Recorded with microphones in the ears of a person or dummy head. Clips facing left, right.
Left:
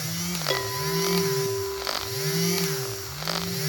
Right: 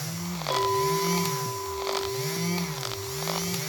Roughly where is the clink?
Left.